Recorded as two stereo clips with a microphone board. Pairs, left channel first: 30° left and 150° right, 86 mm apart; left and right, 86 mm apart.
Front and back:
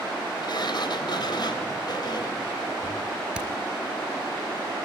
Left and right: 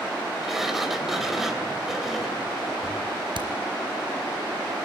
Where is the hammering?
70° right, 3.5 m.